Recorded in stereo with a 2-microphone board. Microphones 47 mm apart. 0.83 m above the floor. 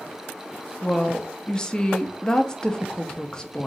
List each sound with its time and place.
0.8 s a woman speaking: 15° left (ahead or behind), 0.8 m